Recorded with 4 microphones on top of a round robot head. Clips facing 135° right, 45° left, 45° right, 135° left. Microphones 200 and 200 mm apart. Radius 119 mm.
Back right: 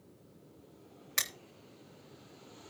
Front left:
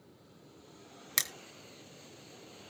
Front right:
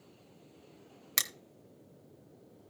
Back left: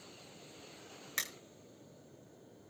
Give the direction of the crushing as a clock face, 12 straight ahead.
12 o'clock.